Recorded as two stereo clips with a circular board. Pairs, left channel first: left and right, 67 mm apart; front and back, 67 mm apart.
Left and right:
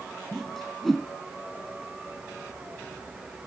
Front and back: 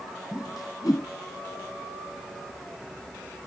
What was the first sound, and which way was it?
A whoosh, 5° left.